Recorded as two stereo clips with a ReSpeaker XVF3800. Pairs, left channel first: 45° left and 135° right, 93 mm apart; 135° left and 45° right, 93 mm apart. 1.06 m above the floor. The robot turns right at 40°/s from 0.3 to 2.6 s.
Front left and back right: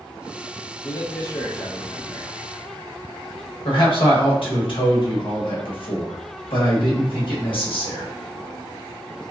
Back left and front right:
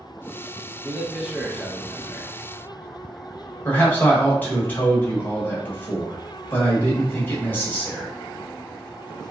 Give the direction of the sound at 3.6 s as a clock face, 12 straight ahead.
10 o'clock.